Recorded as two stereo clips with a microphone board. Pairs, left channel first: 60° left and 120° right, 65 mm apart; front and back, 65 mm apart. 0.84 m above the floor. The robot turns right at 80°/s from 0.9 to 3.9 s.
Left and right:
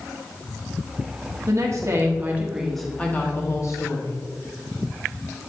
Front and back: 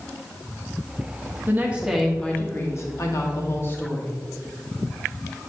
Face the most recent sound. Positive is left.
turn(degrees=60)